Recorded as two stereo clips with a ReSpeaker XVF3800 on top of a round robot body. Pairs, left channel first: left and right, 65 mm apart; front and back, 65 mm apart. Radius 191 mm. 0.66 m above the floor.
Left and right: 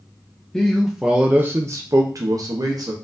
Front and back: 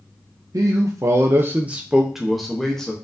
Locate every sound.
0.5 s a man speaking: 170° left, 0.7 m; by 2.9 s 80° right, 1.1 m